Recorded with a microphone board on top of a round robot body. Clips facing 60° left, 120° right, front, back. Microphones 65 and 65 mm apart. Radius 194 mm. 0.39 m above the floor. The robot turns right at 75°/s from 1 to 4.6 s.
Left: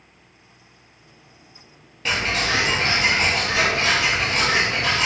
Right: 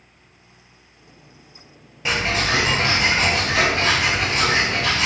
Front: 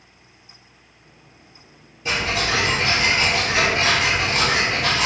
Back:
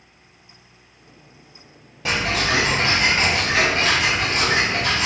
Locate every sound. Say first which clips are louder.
2.0 s ticking: right 1 dB, back 1 dB; 160° left, 0.5 m; by 5.1 s 10° right, 0.5 m